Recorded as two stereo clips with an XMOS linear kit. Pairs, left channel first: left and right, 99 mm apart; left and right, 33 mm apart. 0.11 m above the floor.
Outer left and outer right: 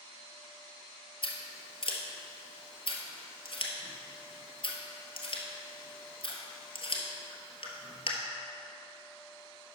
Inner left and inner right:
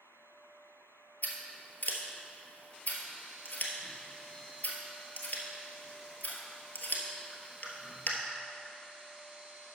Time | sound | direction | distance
1.2 | scissors | 55° left (ahead or behind) | 1.3 m